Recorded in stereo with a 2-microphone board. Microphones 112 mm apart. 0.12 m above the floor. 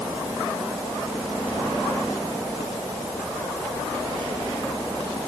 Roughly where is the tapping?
I don't hear tapping.